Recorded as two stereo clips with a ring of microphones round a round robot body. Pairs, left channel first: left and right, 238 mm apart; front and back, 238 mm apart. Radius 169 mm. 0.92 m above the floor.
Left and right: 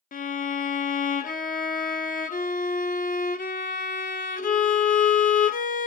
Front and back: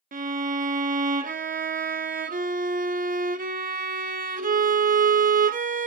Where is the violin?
135° left, 0.5 m.